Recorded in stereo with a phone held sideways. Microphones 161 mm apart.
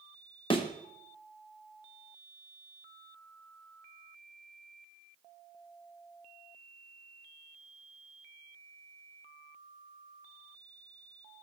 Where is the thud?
30° left (ahead or behind), 1.0 m.